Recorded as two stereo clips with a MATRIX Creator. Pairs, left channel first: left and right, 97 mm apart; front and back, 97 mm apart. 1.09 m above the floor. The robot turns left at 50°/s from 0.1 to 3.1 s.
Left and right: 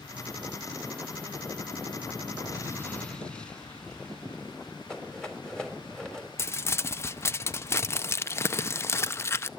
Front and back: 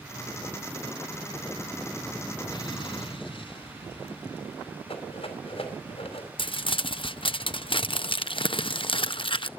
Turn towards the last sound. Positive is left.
turn(degrees=25)